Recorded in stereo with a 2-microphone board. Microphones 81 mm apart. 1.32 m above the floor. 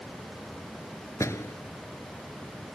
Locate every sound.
1.2 s a door slam: 35° left (ahead or behind)